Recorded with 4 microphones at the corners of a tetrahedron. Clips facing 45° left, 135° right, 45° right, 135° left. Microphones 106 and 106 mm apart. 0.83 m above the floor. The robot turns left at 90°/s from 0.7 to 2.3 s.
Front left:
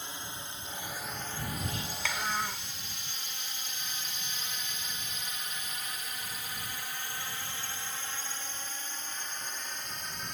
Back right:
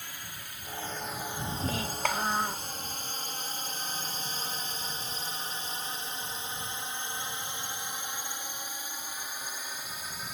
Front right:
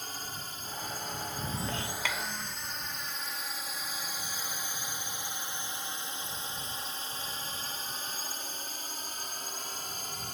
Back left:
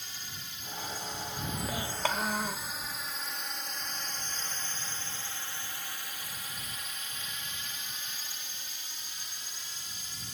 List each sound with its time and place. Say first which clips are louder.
0.0 s a drone: front left 3 dB, front right 6 dB; 15° right; by 10.3 s 50° right
1.6 s a child speaking: back right 6 dB, back left 5 dB; 130° right; by 2.7 s 165° left